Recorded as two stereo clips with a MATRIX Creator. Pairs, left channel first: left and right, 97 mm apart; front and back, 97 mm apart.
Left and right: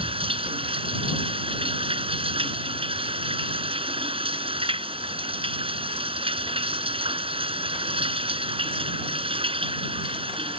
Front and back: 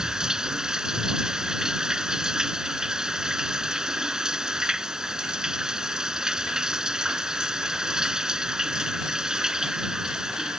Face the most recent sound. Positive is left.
turn(degrees=-100)